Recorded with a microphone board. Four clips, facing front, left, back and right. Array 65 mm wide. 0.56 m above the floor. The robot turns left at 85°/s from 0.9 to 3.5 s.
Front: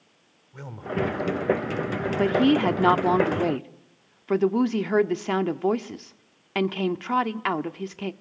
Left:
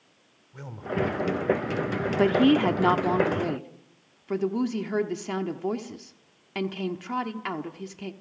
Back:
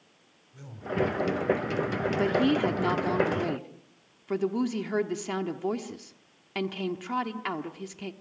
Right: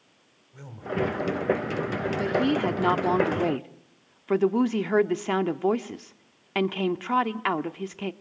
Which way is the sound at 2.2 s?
70° left.